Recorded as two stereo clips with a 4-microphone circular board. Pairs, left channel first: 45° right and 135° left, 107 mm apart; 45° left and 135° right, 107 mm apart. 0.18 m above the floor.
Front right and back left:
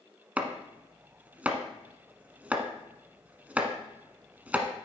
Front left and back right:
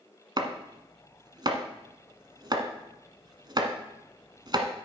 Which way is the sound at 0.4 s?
155° right.